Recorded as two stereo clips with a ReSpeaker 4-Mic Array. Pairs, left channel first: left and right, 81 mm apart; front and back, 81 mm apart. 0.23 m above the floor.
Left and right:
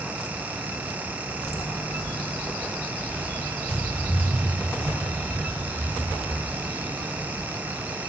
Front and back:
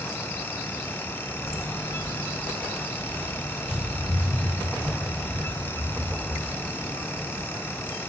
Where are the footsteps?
55° left, 0.6 m; by 7.4 s straight ahead, 5 m.